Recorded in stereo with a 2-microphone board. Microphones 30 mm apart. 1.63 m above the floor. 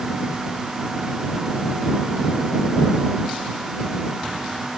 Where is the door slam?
I don't hear a door slam.